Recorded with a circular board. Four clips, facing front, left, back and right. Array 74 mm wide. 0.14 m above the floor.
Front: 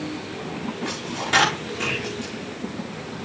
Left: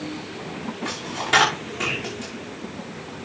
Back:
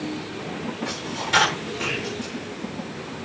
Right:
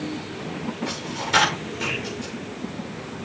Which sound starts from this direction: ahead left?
A dropped coin, at 0.8 s.